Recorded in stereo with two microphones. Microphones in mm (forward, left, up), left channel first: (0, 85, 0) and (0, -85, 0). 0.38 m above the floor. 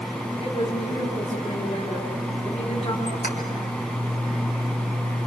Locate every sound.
0.4 s a woman speaking: 35° left (ahead or behind), 3 m
3.1 s a squeak: 65° left (ahead or behind), 3 m